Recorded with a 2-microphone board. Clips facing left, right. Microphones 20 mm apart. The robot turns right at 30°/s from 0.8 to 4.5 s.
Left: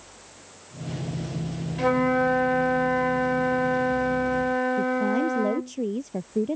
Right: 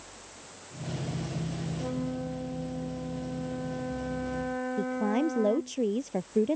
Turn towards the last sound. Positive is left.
turn(degrees=-10)  # may be behind; listen again after turning